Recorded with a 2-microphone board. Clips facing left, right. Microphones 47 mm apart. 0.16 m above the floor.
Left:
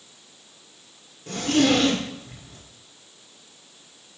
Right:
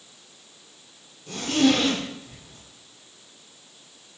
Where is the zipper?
55° left (ahead or behind), 1.9 m.